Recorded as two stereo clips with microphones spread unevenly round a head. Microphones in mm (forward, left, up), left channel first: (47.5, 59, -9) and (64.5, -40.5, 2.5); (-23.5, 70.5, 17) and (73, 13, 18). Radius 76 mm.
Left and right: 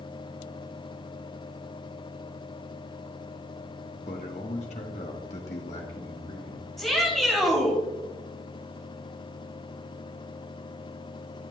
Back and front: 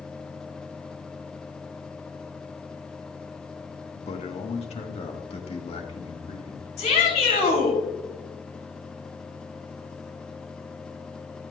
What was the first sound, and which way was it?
A man speaking, 130° left.